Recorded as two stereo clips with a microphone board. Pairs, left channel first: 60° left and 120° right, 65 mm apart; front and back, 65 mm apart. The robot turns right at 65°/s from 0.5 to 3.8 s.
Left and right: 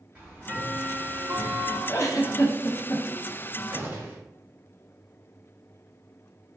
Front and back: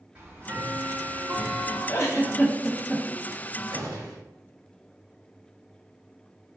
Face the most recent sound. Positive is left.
turn(degrees=180)